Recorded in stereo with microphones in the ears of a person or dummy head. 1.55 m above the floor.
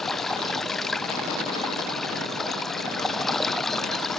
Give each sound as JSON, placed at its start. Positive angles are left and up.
{"t": 0.0, "sound": "running water", "side_deg": 5}